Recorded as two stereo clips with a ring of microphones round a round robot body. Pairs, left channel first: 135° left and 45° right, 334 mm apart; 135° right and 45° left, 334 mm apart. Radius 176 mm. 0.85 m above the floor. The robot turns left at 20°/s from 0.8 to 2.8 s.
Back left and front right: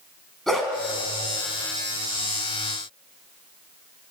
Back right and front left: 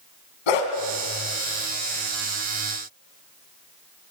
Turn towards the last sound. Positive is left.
turn(degrees=-175)